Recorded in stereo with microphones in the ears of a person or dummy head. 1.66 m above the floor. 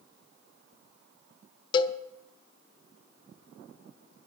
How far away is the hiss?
I don't hear a hiss.